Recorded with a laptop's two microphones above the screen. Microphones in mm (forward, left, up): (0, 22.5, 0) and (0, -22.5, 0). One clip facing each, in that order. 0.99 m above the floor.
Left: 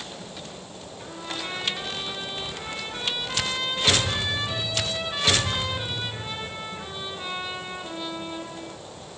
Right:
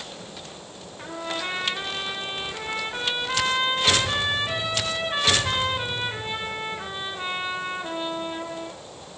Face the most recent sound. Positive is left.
turn(degrees=-30)  # may be behind; listen again after turning